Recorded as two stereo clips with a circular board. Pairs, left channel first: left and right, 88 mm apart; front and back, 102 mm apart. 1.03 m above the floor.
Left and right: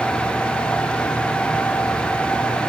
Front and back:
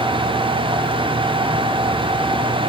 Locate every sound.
Only background noise.